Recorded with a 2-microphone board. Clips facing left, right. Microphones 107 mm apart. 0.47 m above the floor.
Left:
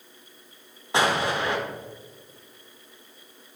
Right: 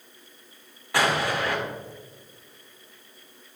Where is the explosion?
25° left (ahead or behind), 1.2 m.